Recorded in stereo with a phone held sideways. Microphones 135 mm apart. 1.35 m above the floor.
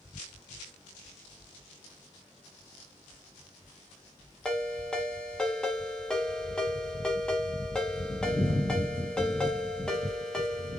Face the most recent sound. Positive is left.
turn(degrees=5)  # may be behind; listen again after turning